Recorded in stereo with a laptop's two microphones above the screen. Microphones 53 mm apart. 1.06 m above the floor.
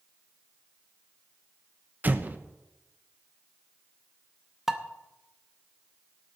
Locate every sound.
2.0 s an explosion: 35° right (ahead or behind), 0.7 m
4.7 s dishes clattering: 5° right (ahead or behind), 0.7 m